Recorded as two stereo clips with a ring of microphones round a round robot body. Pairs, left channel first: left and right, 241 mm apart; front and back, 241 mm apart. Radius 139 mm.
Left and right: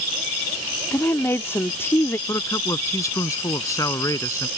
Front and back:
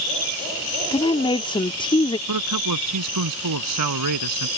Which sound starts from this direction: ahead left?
A woman speaking, at 0.9 s.